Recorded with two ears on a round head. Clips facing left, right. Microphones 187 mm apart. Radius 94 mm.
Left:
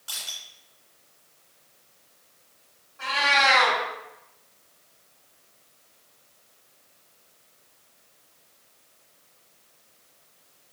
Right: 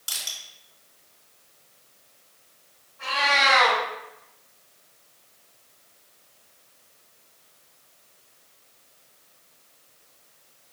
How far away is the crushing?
About 2.5 m.